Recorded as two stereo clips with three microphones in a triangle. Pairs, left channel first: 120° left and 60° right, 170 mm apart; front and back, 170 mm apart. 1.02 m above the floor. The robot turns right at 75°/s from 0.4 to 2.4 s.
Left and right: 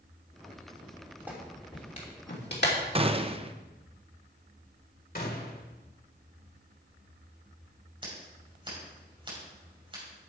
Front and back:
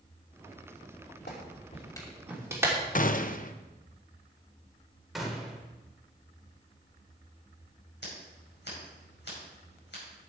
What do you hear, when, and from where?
1.3 s a clap: 20° left, 2.5 m; by 2.8 s 105° left, 2.5 m
3.0 s a gunshot: 15° right, 0.6 m
5.2 s a gunshot: 90° left, 1.7 m
8.0 s scissors: straight ahead, 5.5 m